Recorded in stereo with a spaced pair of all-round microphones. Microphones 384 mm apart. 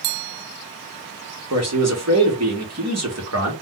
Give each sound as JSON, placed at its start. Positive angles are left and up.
{"t": 1.5, "sound": "a man speaking", "side_deg": -40, "distance_m": 1.2}